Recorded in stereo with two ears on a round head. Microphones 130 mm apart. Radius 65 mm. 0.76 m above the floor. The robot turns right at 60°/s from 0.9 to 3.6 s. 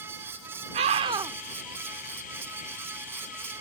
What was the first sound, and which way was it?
A scream, 45° right (ahead or behind).